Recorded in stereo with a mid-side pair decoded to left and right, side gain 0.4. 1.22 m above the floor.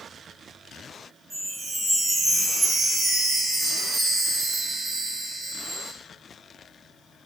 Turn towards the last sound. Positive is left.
turn(degrees=-60)